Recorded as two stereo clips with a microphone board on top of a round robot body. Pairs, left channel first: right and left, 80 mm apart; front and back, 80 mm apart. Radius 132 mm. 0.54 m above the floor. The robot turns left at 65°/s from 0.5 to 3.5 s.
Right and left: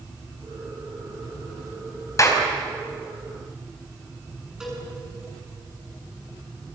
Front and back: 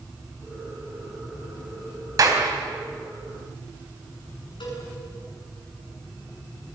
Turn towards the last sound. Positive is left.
turn(degrees=10)